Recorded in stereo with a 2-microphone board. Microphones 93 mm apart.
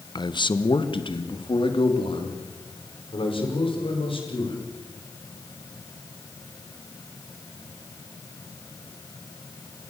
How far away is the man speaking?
About 0.9 m.